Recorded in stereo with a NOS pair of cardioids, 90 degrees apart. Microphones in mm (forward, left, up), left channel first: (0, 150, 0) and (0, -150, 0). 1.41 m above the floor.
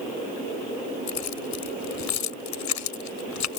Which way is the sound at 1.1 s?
65° left.